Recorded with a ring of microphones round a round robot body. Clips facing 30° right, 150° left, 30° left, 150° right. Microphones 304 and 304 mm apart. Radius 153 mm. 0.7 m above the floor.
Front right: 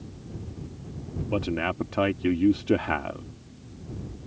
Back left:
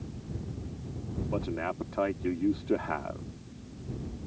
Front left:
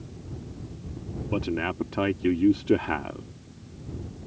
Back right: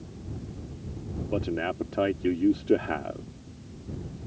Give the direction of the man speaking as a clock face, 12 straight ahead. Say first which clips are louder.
Front right 6 dB, front left 1 dB; 1 o'clock.